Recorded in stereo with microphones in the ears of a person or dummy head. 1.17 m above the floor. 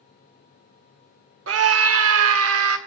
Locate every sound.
1.5 s a scream: 70° right (ahead or behind), 0.6 m; by 2.8 s 85° right, 1.3 m